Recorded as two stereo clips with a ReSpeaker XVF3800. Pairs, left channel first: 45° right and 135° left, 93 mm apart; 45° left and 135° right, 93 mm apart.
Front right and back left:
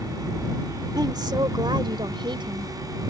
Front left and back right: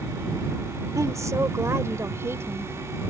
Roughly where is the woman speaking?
Behind.